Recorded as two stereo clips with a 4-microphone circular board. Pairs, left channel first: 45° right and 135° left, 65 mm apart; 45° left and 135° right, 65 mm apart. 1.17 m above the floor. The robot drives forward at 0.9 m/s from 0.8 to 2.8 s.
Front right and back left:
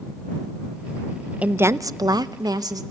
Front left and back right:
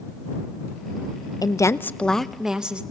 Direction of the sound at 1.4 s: 65° left.